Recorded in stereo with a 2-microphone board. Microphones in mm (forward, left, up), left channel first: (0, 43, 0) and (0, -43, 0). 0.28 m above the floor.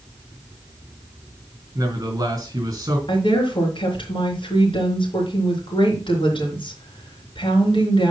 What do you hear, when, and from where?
1.8 s a man speaking: 40° right (ahead or behind), 4 m
3.1 s a woman speaking: 75° left (ahead or behind), 3.5 m